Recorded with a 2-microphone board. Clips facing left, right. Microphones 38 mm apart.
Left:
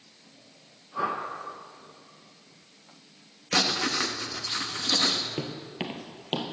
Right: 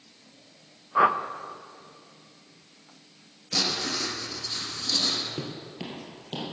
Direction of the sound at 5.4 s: 25° left (ahead or behind).